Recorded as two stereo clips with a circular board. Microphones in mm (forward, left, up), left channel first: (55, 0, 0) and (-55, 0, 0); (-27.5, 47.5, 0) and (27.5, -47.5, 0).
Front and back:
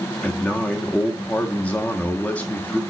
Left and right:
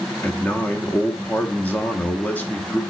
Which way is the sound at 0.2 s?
65° left.